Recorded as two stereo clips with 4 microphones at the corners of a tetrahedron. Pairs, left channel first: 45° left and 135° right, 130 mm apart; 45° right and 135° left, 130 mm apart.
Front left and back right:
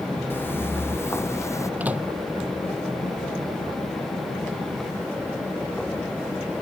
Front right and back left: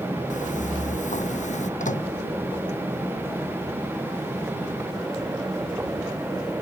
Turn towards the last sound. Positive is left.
turn(degrees=-55)